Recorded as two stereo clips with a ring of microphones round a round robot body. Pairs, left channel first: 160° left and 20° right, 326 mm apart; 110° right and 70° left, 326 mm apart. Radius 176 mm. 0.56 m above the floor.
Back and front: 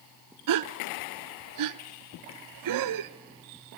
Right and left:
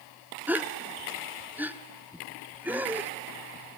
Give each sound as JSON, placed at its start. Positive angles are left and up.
{"t": 0.5, "sound": "a gasp", "azimuth_deg": -15, "distance_m": 0.8}